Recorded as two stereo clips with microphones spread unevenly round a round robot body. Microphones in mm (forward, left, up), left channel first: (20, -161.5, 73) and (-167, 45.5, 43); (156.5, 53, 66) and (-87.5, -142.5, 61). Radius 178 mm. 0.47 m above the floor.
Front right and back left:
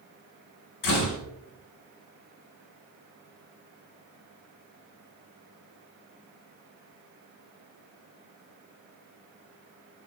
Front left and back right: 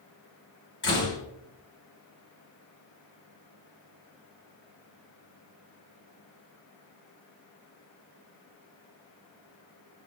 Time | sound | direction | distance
0.8 | a door slam | 15° right | 3.5 m